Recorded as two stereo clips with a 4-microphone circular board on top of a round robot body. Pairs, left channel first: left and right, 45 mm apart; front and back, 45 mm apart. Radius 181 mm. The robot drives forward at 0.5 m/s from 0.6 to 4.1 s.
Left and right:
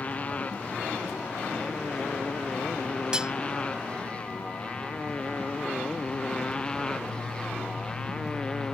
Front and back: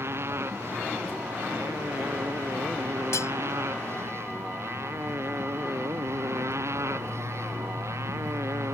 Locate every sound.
0.0 s a motorcycle: 150° left; by 8.7 s 165° left
3.1 s cutlery clinking: 20° right